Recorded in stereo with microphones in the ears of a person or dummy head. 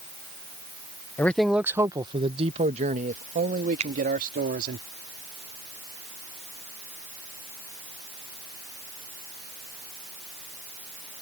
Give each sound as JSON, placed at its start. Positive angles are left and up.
{"t": 1.2, "sound": "a man speaking", "side_deg": 15}
{"t": 3.8, "sound": "a finger snap", "side_deg": -35}